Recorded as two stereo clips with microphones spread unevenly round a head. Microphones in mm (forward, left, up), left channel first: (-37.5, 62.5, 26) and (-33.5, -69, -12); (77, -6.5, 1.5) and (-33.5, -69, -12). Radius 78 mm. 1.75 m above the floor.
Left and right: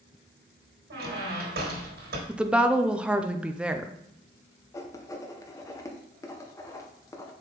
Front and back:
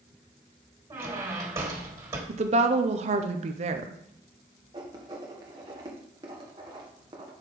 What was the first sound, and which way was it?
A squeak, 85° right.